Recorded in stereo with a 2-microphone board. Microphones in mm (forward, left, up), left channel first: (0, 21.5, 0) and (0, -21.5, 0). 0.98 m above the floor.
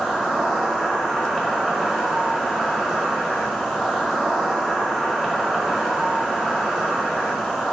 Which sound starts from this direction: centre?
An insect, at 0.0 s.